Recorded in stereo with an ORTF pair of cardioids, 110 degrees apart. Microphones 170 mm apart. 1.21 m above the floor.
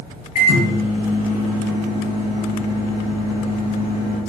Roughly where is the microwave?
Ahead left.